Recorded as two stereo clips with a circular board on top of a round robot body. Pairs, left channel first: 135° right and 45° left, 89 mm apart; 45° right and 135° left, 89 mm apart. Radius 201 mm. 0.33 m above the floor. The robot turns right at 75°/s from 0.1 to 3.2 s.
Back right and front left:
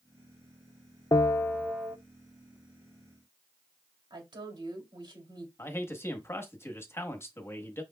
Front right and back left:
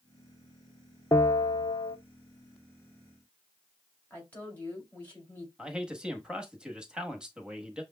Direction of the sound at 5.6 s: 155° right.